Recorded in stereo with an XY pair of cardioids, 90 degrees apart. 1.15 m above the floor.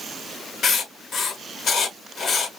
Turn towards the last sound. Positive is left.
turn(degrees=65)